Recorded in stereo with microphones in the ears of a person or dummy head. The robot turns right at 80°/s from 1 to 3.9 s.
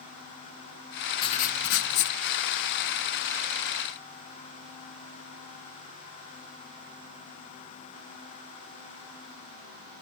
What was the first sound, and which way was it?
Writing, 30° left.